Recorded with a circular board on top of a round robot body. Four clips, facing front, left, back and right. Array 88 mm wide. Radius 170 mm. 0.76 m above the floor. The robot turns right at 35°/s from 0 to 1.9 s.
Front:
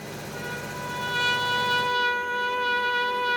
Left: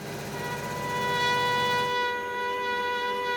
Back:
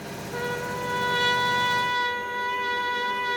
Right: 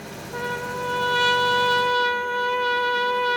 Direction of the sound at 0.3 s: 125° right.